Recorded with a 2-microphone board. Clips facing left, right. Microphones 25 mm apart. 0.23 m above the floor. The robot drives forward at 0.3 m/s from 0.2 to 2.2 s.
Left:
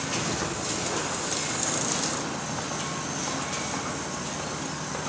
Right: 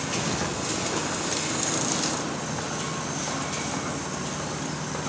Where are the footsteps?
70° right (ahead or behind), 7 m.